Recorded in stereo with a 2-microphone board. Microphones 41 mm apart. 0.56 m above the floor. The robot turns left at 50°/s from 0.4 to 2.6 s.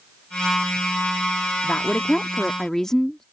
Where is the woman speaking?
70° left; by 3.2 s 25° left.